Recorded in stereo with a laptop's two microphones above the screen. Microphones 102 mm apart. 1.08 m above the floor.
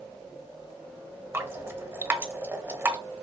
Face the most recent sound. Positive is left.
turn(degrees=-25)  # may be behind; listen again after turning